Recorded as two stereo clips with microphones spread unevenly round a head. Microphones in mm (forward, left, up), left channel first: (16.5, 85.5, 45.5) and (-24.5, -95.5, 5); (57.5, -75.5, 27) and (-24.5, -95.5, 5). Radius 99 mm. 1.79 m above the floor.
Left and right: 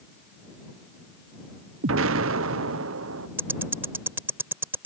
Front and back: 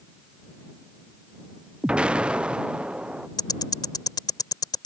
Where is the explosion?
80° right.